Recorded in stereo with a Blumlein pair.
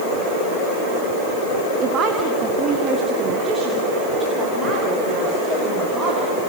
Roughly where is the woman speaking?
Ahead right.